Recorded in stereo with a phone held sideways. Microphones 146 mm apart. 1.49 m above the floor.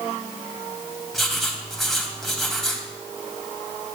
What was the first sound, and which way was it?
Writing, centre (ahead or behind).